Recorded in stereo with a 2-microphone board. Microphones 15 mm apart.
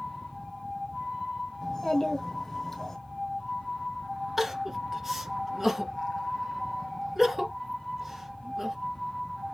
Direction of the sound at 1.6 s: 25° left (ahead or behind).